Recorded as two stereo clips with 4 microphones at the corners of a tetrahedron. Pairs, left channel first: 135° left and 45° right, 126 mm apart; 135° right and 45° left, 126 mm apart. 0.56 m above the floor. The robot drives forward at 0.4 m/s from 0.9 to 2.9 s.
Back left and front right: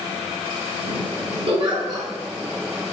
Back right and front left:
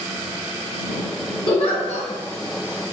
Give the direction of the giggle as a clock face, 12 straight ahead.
3 o'clock.